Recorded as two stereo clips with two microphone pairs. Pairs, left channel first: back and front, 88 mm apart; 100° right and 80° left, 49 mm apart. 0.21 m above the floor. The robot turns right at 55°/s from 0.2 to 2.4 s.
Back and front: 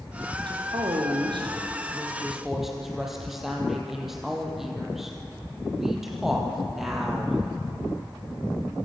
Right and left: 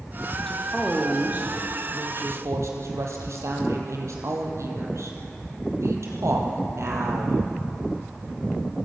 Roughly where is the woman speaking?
Ahead.